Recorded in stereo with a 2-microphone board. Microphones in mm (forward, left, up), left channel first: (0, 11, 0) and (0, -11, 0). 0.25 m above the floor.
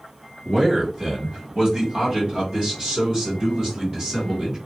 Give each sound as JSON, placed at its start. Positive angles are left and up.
{"t": 0.5, "sound": "a man speaking", "side_deg": -25, "distance_m": 1.8}